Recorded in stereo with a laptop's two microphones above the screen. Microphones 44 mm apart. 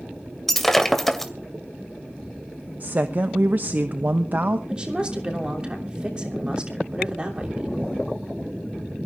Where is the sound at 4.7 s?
25° right (ahead or behind), 3 m.